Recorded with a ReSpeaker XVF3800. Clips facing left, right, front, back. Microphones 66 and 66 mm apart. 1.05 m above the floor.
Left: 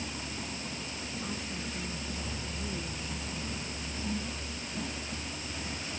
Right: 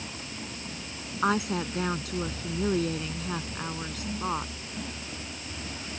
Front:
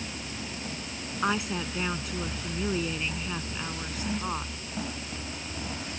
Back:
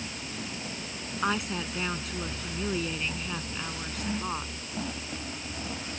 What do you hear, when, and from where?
1.2 s a woman speaking: 85° right